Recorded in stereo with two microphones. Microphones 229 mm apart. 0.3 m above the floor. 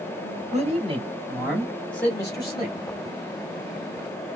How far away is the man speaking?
About 1.2 m.